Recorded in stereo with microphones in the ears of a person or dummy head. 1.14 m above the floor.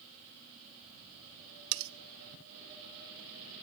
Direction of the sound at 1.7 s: 75° right (ahead or behind).